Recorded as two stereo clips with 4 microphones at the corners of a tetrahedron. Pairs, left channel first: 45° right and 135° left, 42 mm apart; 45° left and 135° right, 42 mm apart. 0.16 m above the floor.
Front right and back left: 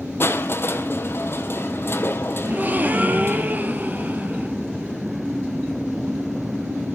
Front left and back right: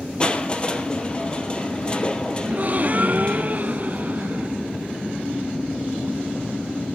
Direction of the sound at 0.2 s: 20° right.